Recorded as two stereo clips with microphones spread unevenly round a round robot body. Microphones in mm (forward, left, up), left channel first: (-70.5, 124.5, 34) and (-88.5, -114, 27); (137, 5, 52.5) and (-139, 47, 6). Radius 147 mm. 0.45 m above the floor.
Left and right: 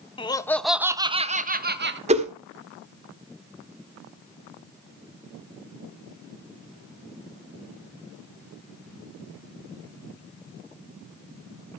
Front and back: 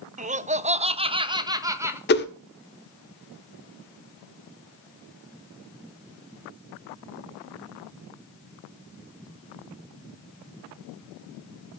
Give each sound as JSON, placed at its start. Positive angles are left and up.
{"t": 0.2, "sound": "laughter", "azimuth_deg": 145, "distance_m": 0.9}
{"t": 2.1, "sound": "a whoosh", "azimuth_deg": -50, "distance_m": 1.5}